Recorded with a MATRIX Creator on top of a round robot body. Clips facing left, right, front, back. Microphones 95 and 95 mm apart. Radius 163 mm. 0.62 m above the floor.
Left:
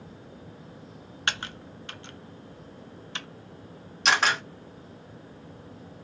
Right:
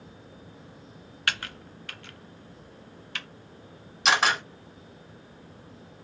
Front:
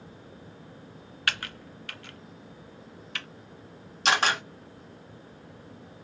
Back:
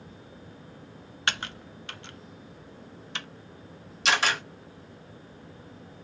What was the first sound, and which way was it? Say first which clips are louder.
Typing on a keyboard: even, back 1 dB; 135° left.